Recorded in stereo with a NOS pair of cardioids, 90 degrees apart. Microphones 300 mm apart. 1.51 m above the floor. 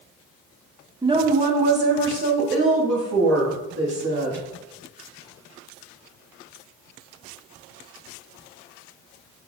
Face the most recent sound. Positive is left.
turn(degrees=-55)